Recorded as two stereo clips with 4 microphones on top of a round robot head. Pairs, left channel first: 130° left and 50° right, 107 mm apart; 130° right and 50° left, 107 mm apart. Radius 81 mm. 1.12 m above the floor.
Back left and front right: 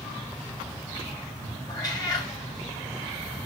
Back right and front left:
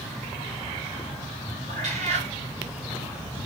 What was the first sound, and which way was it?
A cat meowing, 75° left.